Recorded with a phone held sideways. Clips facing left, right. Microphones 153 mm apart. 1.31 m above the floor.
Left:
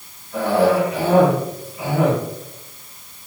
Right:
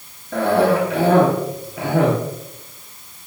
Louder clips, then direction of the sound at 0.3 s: Even; 85° right.